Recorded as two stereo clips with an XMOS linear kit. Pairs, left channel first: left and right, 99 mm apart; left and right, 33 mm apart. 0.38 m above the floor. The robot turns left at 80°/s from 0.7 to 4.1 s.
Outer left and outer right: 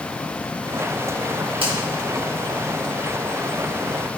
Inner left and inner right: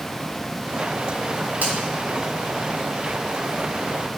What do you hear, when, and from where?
1.6 s a finger snap: 70° right (ahead or behind), 3.5 m